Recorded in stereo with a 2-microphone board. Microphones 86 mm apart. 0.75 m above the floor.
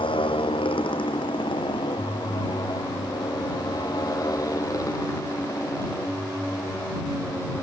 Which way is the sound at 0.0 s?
85° left.